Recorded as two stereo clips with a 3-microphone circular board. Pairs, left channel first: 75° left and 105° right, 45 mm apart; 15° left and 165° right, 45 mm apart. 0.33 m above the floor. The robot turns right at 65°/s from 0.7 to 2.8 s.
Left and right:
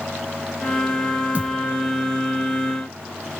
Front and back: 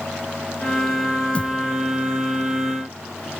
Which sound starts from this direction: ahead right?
A thud, at 1.4 s.